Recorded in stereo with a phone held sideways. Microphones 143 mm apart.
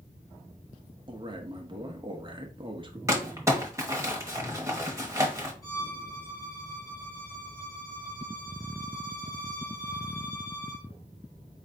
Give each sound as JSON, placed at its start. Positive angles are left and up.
{"t": 1.1, "sound": "a man speaking", "side_deg": -35, "distance_m": 0.7}
{"t": 3.1, "sound": "crumpling", "side_deg": -20, "distance_m": 1.1}
{"t": 5.6, "sound": "a violin", "side_deg": 25, "distance_m": 1.8}